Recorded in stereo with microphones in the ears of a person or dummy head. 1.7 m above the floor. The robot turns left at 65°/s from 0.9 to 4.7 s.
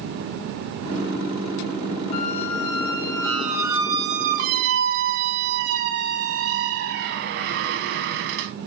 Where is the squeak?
75° left, 0.9 m; by 8.5 s 95° right, 0.9 m.